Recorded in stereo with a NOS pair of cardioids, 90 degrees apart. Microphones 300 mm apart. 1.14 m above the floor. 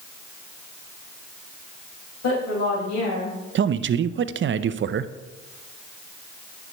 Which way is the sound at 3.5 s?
40° right.